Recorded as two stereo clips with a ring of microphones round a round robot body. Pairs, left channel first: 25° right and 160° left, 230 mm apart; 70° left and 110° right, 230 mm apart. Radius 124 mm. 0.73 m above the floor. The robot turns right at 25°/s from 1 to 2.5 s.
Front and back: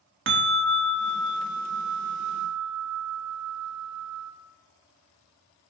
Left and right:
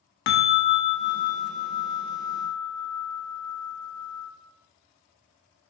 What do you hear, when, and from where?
0.3 s a bell: 115° left, 0.7 m; by 4.3 s 150° left, 0.7 m